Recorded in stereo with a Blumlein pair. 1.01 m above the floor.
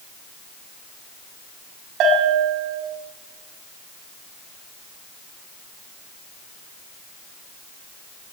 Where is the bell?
35° right, 7 m.